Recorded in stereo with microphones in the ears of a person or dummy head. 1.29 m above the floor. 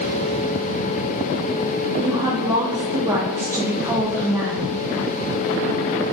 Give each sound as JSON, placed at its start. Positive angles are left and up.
{"t": 2.0, "sound": "a woman speaking", "side_deg": -20, "distance_m": 0.5}